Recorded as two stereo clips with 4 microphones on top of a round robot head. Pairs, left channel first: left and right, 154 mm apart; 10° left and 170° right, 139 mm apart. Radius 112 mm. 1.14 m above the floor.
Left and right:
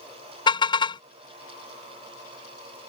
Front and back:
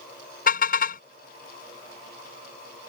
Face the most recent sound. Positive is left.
turn(degrees=30)